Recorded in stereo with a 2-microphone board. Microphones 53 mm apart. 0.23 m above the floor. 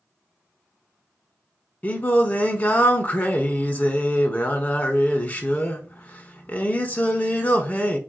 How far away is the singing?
About 0.6 m.